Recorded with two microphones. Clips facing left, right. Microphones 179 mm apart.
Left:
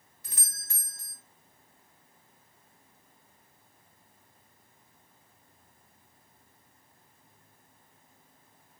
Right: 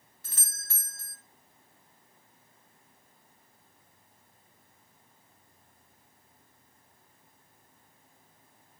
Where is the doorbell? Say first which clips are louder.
Left 1 dB; 15° left (ahead or behind), 2.5 m.